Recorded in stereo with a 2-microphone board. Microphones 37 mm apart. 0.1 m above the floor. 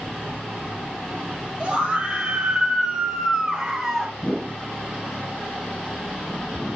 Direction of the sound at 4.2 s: 10° right (ahead or behind).